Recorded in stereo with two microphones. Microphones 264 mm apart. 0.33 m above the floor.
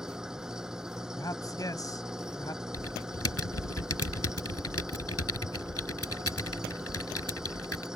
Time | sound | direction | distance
0.0 | an engine running | centre (ahead or behind) | ?
1.1 | a man speaking | 15° left (ahead or behind) | ?
2.7 | typing on a keyboard | 70° left (ahead or behind) | ?